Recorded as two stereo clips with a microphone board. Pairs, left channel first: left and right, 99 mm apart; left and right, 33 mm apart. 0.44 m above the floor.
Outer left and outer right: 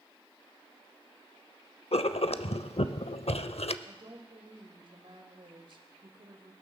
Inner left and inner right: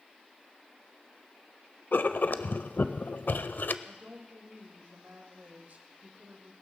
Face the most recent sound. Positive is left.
turn(degrees=-55)  # may be behind; listen again after turning